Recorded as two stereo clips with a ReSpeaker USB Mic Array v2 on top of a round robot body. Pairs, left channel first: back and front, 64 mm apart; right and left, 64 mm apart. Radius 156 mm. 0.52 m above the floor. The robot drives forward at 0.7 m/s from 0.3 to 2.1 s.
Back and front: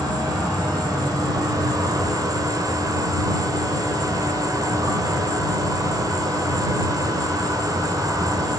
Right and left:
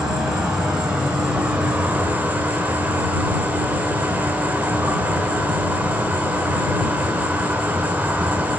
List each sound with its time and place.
0.0 s an insect: 15° left, 3 m; by 8.6 s 25° left, 1.6 m